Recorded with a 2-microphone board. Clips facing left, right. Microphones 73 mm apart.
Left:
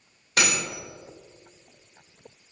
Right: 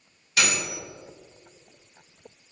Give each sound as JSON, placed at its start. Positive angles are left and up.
{"t": 0.4, "sound": "cutlery clinking", "side_deg": 45, "distance_m": 2.5}